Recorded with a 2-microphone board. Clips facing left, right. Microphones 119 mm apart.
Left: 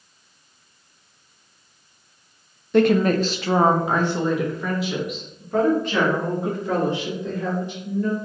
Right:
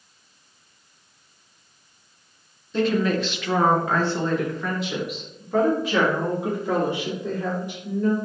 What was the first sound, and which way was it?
A woman speaking, 65° left (ahead or behind).